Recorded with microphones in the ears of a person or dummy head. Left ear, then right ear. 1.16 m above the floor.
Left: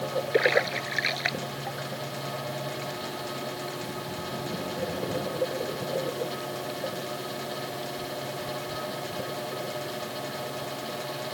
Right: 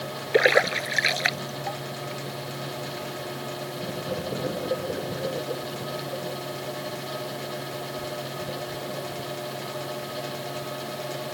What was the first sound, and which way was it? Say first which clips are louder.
A splash: right 5 dB; 25° right (ahead or behind).